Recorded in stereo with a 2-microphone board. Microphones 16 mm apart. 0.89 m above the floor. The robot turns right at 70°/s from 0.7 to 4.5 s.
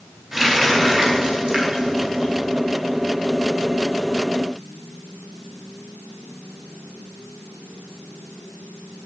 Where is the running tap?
20° right (ahead or behind), 4.5 m; by 2.4 s 45° right (ahead or behind), 4.5 m.